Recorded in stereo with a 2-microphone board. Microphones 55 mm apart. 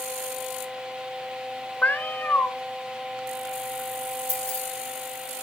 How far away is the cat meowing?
About 0.5 m.